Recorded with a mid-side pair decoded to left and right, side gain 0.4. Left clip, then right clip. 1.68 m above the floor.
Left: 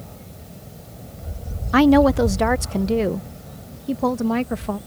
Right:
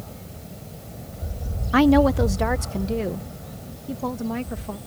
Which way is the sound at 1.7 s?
25° left.